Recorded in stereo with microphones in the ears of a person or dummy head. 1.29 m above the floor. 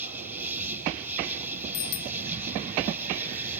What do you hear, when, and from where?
0.0 s an insect: 10° right (ahead or behind)
1.7 s a bicycle bell: 70° left (ahead or behind)